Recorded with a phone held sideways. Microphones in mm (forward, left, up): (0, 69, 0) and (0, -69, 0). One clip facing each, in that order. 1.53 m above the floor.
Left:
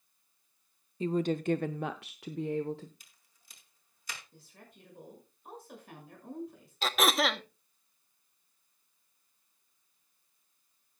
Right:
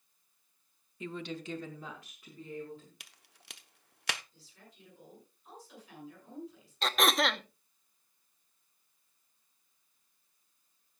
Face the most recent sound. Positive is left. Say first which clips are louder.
# left 1 dB
turn(degrees=0)  # may be behind; listen again after turning